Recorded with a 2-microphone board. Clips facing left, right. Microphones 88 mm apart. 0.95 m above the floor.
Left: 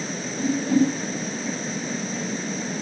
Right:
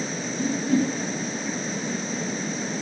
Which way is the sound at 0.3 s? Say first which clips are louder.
Left 3 dB; 30° left (ahead or behind).